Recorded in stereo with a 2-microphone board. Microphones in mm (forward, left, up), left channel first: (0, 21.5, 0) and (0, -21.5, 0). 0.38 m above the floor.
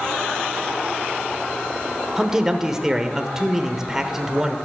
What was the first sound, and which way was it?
A man speaking, 15° right (ahead or behind).